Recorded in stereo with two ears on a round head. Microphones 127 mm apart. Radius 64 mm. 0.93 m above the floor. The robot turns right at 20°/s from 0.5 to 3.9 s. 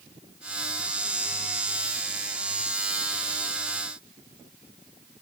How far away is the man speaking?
I don't hear a man speaking.